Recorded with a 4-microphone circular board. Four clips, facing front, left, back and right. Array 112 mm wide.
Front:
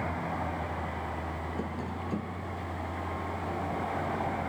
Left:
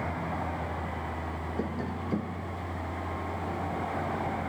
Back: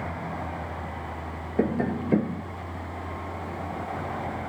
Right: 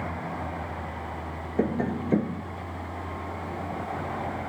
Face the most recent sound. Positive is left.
turn(degrees=-145)